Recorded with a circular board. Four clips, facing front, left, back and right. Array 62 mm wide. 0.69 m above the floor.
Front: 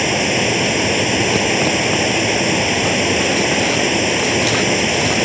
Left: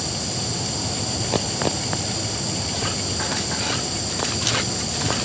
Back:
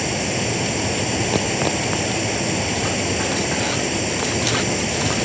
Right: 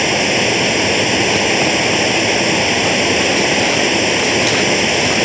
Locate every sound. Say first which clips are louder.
0.0 s running water: right 15 dB, front 6 dB; 65° right